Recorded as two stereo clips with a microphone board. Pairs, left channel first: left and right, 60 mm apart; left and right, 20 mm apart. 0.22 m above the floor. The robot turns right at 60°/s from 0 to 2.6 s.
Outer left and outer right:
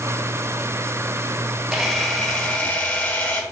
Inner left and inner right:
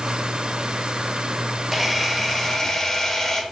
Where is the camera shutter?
5° right, 2 m; by 3.4 s 50° left, 2 m.